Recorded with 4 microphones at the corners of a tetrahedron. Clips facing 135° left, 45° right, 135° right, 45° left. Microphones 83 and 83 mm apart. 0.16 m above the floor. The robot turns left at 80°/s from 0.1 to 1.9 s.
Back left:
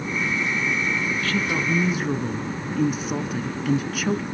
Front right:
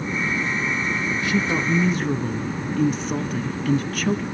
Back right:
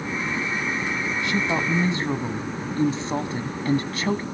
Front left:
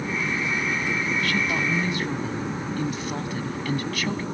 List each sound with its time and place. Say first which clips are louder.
1.2 s a woman speaking: front right 4 dB, back right 1 dB; 90° right, 1.1 m; by 4.2 s 145° right, 1.1 m